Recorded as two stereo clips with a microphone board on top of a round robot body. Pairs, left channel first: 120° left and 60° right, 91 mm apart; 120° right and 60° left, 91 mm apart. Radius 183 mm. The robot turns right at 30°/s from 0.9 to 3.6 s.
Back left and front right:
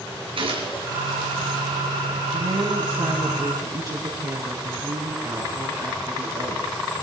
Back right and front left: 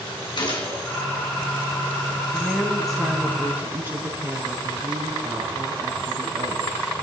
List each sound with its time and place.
0.4 s a gunshot: 85° right, 4 m
2.3 s a woman speaking: 50° right, 6 m; by 6.7 s 10° right, 6 m